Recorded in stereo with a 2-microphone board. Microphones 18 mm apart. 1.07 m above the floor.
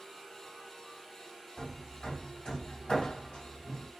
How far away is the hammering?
About 1.6 m.